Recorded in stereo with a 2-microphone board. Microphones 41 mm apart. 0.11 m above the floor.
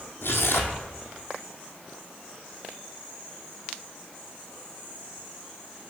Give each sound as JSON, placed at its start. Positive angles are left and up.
{"t": 0.2, "sound": "tearing paper", "side_deg": 75, "distance_m": 1.4}